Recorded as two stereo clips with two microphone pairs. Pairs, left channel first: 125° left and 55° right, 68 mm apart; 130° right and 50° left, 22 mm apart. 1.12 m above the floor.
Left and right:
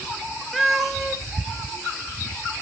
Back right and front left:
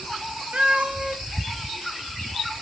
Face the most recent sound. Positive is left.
turn(degrees=35)